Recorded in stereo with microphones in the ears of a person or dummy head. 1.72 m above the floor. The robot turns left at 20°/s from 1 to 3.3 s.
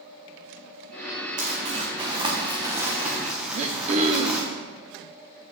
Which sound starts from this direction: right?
Throat clearing, at 3.5 s.